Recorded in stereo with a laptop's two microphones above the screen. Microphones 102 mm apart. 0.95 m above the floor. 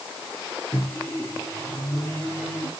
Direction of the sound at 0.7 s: 30° left (ahead or behind).